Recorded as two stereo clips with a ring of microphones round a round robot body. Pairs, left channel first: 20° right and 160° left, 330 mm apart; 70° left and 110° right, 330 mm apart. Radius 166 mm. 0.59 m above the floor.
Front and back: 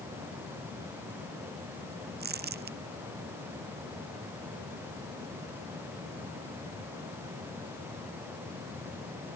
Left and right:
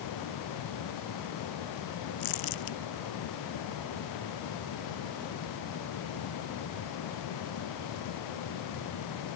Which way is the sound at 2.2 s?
95° left.